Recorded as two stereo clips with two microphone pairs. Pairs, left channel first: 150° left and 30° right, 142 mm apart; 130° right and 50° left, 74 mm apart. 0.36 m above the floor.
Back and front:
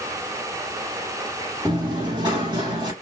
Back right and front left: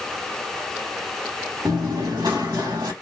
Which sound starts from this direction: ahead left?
Running footsteps, at 1.6 s.